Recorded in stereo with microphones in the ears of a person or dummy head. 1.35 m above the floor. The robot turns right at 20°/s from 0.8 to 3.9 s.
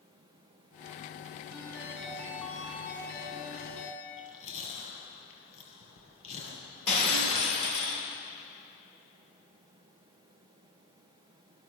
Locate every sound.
1.5 s a ringtone: 10° right, 9 m; by 4.0 s 35° left, 9 m
4.0 s chewing: 35° left (ahead or behind), 8.5 m
6.9 s breaking glass: 80° left, 6 m